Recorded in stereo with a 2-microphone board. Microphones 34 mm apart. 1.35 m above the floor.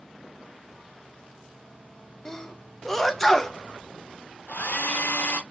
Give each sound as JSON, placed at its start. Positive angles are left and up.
{"t": 2.2, "sound": "a sneeze", "side_deg": 10, "distance_m": 0.8}
{"t": 4.5, "sound": "a hair dryer", "side_deg": 65, "distance_m": 1.1}